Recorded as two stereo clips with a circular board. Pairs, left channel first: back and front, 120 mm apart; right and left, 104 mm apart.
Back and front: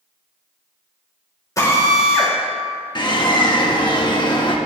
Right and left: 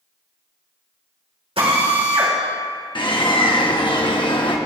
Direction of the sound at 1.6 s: 120° left.